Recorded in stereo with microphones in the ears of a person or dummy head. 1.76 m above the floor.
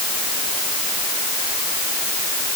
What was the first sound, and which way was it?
Only background noise.